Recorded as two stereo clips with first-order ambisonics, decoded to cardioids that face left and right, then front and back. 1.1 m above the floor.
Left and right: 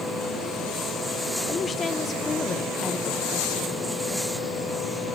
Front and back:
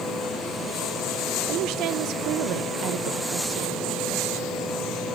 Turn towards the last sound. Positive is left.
turn(degrees=160)